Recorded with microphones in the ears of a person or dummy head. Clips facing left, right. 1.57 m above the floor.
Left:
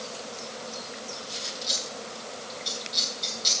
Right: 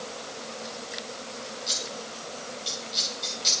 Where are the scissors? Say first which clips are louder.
Even; 5° right (ahead or behind), 3.5 m.